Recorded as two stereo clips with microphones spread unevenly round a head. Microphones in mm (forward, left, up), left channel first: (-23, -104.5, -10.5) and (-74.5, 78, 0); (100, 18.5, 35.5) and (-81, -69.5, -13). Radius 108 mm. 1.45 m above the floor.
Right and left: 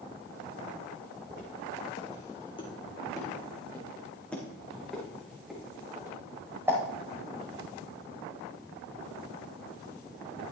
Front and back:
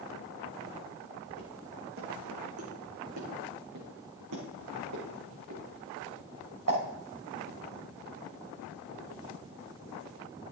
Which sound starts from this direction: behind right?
Footsteps, at 1.3 s.